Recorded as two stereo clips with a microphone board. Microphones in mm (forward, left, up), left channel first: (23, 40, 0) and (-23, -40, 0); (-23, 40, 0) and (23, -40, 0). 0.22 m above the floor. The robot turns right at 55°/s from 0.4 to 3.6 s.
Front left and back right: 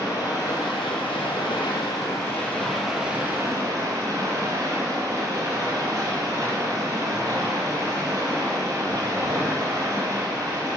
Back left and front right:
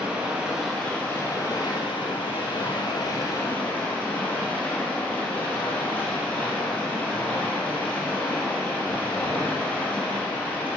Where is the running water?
15° left, 5.5 m; by 10.8 s 165° right, 5.5 m.